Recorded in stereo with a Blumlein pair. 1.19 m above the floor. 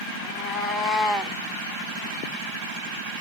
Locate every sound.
0.2 s a cat meowing: 35° left, 1.2 m; by 1.4 s straight ahead, 0.9 m